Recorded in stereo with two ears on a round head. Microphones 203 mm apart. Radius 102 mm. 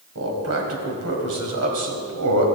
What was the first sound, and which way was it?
A man speaking, 65° right (ahead or behind).